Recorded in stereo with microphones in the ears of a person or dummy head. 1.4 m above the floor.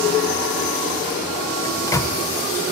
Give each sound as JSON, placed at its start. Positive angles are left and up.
{"t": 1.6, "sound": "a microwave", "side_deg": 15, "distance_m": 0.5}